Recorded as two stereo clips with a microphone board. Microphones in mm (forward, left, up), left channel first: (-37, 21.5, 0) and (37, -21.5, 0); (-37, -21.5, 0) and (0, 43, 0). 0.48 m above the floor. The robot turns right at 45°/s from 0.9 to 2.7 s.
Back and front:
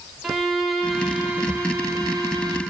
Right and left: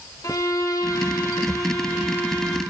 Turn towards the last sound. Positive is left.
turn(degrees=-35)